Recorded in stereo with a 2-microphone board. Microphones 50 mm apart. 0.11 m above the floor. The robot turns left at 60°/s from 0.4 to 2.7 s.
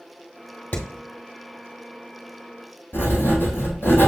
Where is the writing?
50° left (ahead or behind), 1.4 m.